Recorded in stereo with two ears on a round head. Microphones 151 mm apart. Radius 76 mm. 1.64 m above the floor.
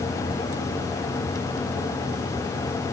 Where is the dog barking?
I don't hear a dog barking.